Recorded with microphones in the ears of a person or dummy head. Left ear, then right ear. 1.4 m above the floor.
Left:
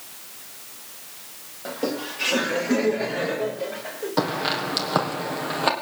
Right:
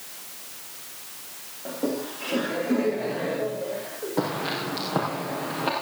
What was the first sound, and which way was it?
Laughter, 70° left (ahead or behind).